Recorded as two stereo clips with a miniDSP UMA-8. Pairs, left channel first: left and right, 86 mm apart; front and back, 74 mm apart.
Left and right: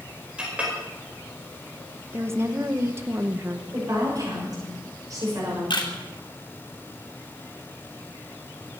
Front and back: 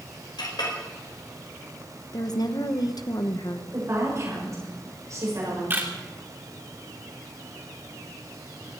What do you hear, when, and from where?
0.4 s a clink: 10° right, 5 m
2.1 s a woman speaking: 30° right, 1.2 m
3.7 s a woman speaking: 135° right, 6 m
5.7 s a camera shutter: 120° left, 3 m